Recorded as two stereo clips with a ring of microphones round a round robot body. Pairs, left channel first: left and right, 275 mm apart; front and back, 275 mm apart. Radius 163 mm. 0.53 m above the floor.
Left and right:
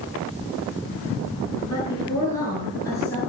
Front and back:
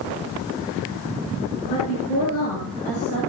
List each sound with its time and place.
1.6 s a woman speaking: 15° left, 8 m; by 3.2 s 10° left, 9.5 m